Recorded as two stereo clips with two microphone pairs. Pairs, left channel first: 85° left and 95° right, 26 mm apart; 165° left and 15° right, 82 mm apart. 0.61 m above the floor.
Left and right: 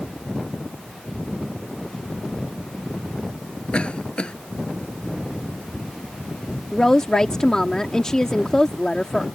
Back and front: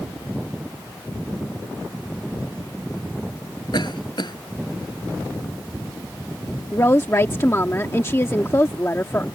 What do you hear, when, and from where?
3.7 s a cough: 135° left
6.7 s a woman speaking: 135° left